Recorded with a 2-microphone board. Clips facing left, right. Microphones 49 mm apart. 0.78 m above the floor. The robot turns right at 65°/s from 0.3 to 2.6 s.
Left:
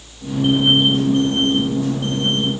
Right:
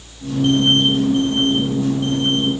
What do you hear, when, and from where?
Only background noise.